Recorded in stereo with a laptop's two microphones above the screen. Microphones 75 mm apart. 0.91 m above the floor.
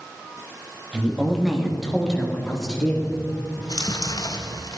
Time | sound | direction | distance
0.9 | a woman speaking | 15° right (ahead or behind) | 1.4 m
3.6 | chewing | 60° left (ahead or behind) | 0.9 m